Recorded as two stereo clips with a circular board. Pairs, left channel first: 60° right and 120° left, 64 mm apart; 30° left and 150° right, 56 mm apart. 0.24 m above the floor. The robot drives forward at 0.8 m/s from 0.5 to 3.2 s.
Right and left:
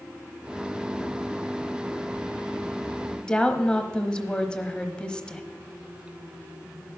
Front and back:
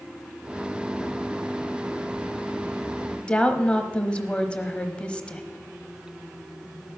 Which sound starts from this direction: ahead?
A woman speaking, at 3.2 s.